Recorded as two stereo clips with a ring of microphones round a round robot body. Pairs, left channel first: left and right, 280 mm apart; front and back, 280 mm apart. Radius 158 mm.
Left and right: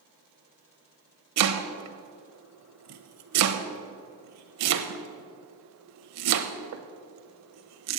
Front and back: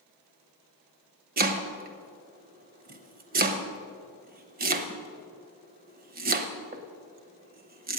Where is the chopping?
120° right, 1.0 m.